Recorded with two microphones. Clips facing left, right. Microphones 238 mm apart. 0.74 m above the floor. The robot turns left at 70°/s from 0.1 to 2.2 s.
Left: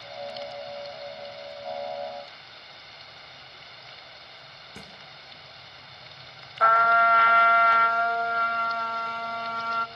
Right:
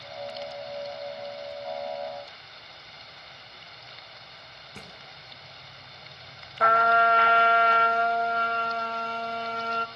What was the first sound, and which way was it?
A thud, 5° left (ahead or behind).